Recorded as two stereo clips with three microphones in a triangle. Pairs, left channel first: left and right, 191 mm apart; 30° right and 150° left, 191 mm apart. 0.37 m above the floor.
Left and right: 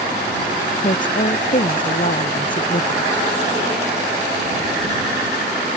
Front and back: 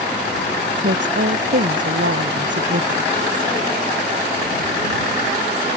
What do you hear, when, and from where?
0.7 s a woman speaking: 135° left